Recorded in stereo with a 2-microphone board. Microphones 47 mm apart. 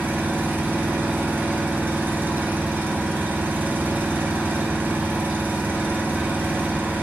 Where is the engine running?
45° right (ahead or behind), 1.5 m.